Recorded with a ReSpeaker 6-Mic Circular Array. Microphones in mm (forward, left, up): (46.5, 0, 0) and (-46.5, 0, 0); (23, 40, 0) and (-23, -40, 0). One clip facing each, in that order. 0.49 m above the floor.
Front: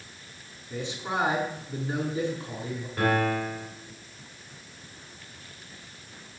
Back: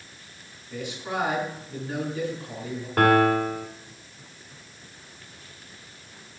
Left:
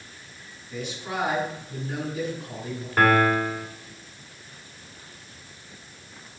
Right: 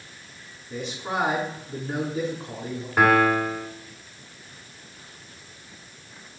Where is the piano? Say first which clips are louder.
Back 7 dB, right 1 dB; 155° left, 2 m.